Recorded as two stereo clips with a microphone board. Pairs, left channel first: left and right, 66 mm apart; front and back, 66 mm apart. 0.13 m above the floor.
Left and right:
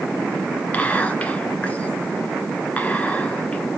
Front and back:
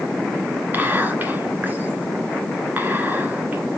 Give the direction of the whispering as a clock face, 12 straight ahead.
7 o'clock.